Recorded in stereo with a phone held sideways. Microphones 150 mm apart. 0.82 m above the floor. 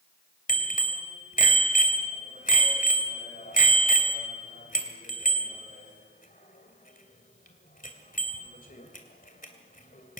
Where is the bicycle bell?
65° left (ahead or behind), 2.5 m.